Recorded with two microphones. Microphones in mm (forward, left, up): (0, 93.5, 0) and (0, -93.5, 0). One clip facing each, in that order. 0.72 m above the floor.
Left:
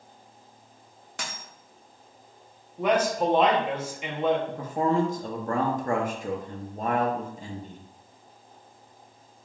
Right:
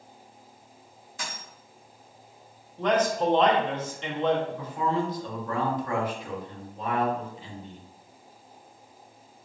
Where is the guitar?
I don't hear a guitar.